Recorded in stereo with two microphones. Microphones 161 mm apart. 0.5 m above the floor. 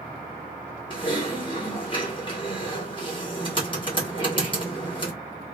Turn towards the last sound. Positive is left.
turn(degrees=30)  # may be behind; listen again after turning